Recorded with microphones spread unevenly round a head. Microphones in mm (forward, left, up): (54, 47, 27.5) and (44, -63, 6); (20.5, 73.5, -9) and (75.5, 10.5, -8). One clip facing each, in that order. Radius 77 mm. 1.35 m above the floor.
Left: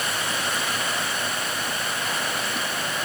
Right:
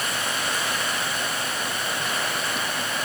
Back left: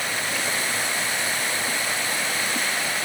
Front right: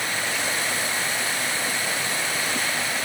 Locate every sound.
Only background noise.